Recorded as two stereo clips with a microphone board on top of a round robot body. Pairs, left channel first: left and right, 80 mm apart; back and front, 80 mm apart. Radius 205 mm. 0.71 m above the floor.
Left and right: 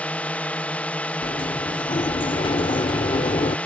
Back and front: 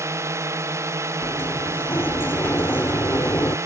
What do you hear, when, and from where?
0.0 s a drone: 25° left
1.2 s a sliding door: 115° left